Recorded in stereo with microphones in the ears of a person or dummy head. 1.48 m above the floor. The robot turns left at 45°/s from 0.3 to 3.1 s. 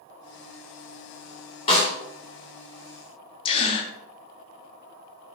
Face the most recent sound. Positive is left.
turn(degrees=30)  # may be behind; listen again after turning